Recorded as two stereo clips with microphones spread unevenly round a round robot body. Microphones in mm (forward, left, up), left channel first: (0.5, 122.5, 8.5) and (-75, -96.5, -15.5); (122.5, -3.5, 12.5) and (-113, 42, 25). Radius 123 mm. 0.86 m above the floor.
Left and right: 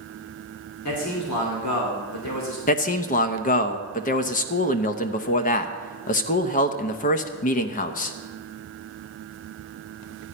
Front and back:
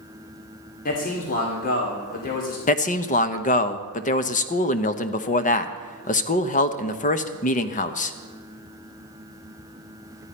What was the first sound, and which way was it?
A man speaking, 45° left.